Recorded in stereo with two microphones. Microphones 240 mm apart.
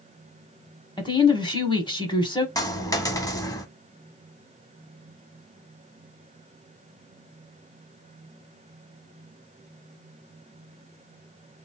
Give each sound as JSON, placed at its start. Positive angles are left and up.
{"t": 1.0, "sound": "a woman speaking", "side_deg": 20, "distance_m": 1.0}
{"t": 2.5, "sound": "a dropped coin", "side_deg": 15, "distance_m": 0.7}